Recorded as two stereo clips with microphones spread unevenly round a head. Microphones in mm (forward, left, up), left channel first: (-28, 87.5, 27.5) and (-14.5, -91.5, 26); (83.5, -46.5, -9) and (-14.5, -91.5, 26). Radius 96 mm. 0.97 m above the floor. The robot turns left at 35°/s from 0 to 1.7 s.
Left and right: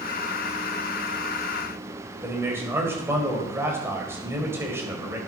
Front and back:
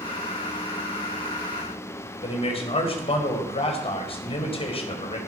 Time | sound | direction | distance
2.2 | a man speaking | 5° right | 4 m